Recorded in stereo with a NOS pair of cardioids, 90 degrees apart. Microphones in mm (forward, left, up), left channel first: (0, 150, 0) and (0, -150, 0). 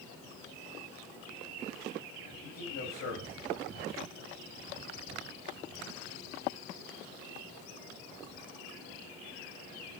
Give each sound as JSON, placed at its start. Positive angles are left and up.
{"t": 2.4, "sound": "a man speaking", "azimuth_deg": 65, "distance_m": 8.0}